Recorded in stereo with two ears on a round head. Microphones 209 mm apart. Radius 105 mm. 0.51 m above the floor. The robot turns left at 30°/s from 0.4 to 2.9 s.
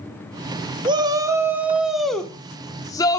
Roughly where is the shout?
Behind right.